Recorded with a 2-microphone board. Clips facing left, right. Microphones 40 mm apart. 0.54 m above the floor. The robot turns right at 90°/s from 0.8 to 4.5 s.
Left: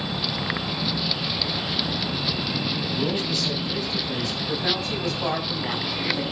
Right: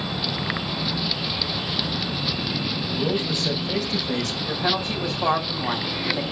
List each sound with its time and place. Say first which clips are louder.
2.9 s a man speaking: right 3 dB; 175° left, 2.5 m; by 4.4 s 55° right, 2.5 m
4.5 s a woman speaking: right 2 dB; 20° right (ahead or behind), 4 m